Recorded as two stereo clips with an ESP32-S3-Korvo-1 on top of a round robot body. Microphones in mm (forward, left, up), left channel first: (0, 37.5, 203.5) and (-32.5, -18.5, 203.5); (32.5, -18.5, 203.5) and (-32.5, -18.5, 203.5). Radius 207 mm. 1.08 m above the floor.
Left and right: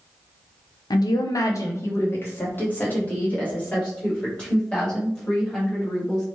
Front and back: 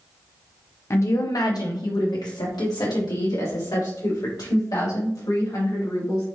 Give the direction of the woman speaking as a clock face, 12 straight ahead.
10 o'clock.